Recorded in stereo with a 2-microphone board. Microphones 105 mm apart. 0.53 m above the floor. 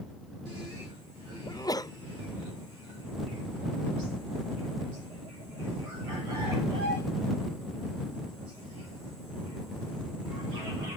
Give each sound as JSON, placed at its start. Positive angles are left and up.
{"t": 1.5, "sound": "a sneeze", "side_deg": 35}